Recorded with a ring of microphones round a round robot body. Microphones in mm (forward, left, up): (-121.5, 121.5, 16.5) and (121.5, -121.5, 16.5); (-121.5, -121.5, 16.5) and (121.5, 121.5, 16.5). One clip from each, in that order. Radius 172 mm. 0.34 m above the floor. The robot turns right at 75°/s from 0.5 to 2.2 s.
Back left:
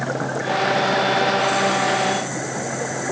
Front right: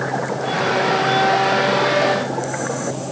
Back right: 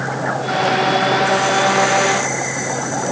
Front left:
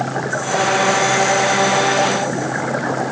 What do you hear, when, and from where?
Only background noise.